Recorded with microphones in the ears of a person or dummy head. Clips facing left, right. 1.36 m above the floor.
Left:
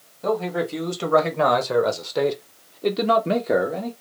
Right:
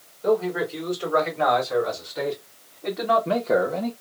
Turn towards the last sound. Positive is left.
turn(degrees=-5)  # may be behind; listen again after turning